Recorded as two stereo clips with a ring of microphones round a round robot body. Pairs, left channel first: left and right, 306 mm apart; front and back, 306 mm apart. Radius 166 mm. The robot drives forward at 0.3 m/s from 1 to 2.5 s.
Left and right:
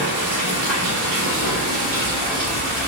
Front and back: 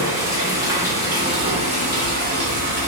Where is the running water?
100° right, 1.0 m; by 2.9 s 120° right, 1.2 m.